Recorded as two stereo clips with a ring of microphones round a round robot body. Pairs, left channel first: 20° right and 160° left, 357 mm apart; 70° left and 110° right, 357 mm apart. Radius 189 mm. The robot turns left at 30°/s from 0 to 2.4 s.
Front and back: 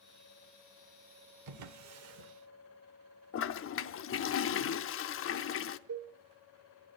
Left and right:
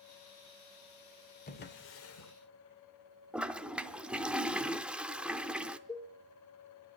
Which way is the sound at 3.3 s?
30° right.